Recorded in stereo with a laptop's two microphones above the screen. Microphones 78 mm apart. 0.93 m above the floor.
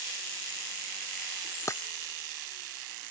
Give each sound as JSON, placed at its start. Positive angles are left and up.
{"t": 1.7, "sound": "breaking glass", "side_deg": 40}